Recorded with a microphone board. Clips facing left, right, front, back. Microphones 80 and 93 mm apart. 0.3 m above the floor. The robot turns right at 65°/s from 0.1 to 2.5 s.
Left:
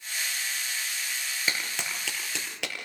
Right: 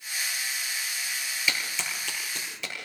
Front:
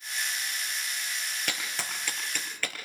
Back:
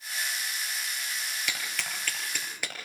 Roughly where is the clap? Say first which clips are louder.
Right 1 dB, front 1 dB; ahead left.